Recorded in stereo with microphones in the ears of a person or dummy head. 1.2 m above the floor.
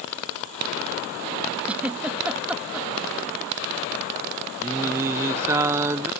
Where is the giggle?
Centre (ahead or behind).